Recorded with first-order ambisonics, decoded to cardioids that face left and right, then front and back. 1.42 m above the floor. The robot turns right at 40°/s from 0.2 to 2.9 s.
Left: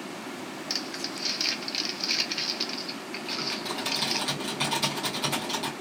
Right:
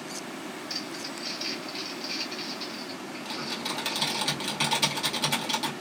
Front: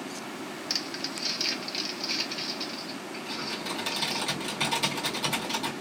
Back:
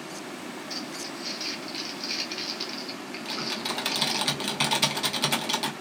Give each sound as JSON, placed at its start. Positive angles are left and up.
{"t": 0.7, "sound": "crumpling", "azimuth_deg": 30, "distance_m": 0.6}
{"t": 3.2, "sound": "typing on a keyboard", "azimuth_deg": -165, "distance_m": 1.3}